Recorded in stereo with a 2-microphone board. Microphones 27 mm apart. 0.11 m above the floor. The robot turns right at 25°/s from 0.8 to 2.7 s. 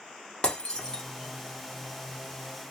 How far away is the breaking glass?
About 0.9 m.